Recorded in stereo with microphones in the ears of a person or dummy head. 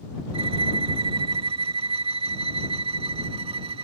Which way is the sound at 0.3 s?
30° right (ahead or behind).